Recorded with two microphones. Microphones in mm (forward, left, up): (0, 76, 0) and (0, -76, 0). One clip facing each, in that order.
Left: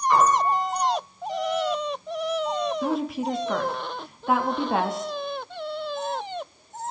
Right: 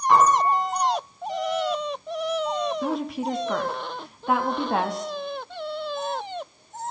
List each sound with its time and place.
0.1 s a piano: 80° right, 6 m
2.8 s a woman speaking: centre (ahead or behind), 0.6 m